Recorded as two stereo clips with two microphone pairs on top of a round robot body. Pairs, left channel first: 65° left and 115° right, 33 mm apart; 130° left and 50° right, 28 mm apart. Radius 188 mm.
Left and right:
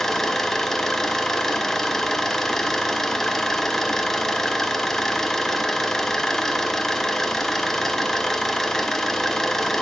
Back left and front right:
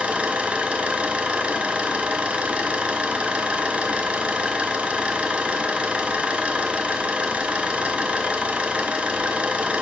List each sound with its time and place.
0.0 s an engine running: 10° right, 1.3 m